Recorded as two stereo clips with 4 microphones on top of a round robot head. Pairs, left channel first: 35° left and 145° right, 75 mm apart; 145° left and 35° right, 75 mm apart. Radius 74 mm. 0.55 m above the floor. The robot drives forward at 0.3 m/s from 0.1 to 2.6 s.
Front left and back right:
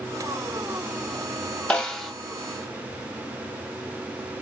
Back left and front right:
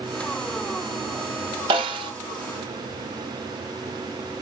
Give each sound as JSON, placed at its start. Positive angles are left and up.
{"t": 1.7, "sound": "a snare drum", "azimuth_deg": -40, "distance_m": 0.6}